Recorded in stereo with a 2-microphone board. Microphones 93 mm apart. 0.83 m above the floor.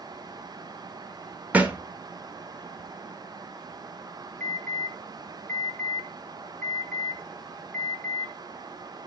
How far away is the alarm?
About 2.5 m.